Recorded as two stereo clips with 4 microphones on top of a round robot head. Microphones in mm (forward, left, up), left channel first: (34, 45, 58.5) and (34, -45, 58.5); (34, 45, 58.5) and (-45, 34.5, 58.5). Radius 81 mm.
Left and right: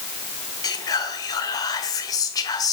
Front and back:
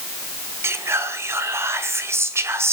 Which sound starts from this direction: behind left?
Whispering, at 0.6 s.